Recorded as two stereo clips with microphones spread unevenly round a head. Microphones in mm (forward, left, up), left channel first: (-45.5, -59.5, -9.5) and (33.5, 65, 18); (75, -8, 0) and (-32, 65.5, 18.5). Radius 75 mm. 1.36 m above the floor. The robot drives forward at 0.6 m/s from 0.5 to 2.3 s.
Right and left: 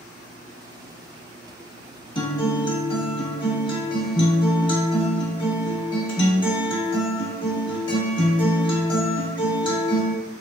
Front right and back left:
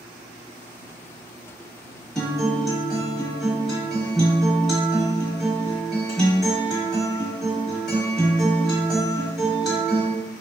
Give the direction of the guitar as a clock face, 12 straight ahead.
5 o'clock.